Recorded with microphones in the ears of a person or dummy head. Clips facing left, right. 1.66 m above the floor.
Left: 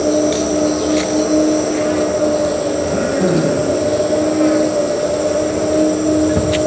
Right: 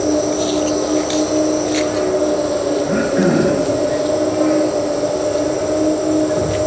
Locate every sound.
0.0 s an insect: 30° left (ahead or behind), 2.5 m
2.8 s throat clearing: 60° right (ahead or behind), 8 m